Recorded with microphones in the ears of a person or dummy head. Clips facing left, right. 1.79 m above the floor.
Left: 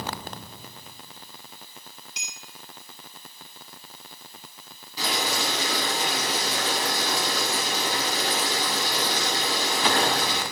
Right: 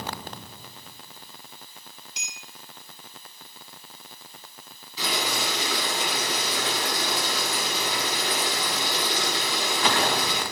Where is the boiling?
35° left (ahead or behind), 9 m.